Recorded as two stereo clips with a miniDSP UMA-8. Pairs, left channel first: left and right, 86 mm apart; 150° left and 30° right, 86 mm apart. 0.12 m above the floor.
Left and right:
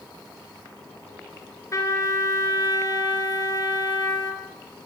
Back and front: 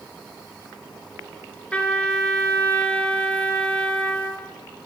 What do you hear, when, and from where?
1.7 s a trumpet: 85° left, 1.8 m